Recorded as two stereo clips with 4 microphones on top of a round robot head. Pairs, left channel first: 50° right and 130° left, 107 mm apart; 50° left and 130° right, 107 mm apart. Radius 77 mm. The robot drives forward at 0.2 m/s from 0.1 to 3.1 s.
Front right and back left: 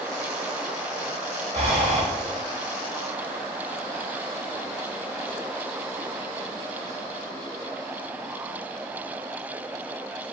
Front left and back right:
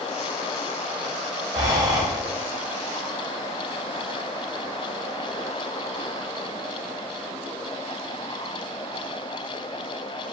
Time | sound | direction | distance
1.5 | breathing | 165° left | 0.7 m